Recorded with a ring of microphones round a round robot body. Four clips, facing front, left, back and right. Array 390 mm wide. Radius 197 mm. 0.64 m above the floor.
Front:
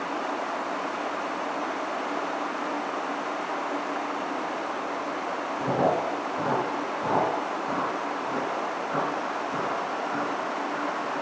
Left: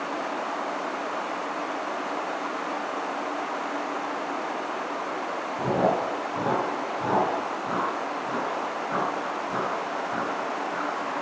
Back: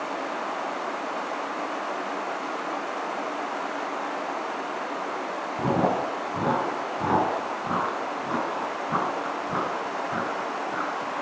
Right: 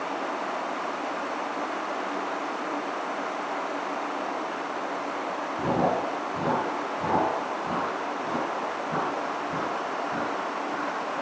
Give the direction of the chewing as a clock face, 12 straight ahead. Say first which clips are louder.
Left 1 dB, back 1 dB; 6 o'clock.